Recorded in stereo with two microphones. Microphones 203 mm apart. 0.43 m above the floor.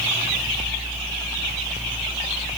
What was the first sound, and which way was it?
Only background noise.